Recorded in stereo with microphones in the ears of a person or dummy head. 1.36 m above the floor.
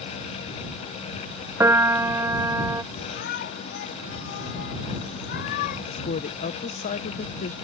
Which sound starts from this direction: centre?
A piano, at 1.6 s.